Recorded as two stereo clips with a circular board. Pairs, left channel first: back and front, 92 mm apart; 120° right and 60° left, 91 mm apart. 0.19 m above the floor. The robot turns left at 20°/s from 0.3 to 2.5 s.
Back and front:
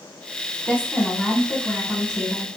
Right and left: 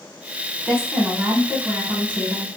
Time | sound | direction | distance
0.7 | a woman speaking | 135° left | 1.5 m